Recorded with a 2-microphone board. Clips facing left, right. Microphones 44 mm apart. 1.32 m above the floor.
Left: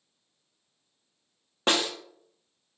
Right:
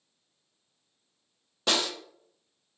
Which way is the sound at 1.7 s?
35° left (ahead or behind).